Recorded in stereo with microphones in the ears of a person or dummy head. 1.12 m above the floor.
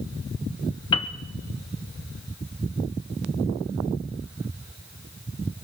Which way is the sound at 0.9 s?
20° left (ahead or behind).